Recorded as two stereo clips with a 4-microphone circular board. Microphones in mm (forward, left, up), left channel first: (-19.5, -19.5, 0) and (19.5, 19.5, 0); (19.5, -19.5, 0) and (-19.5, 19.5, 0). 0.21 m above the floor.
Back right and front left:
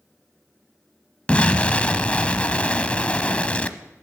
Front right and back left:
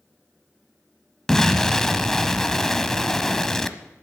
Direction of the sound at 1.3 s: 120° right.